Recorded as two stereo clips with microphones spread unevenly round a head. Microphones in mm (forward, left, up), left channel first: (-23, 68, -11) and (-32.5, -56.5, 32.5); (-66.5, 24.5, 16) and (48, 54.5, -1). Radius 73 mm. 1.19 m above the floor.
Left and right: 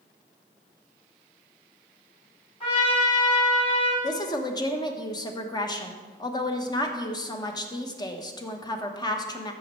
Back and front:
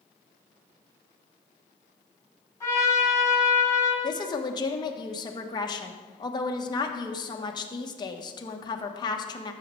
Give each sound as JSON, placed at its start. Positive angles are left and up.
{"t": 2.6, "sound": "a trumpet", "azimuth_deg": 135, "distance_m": 4.5}
{"t": 4.0, "sound": "a woman speaking", "azimuth_deg": 140, "distance_m": 1.2}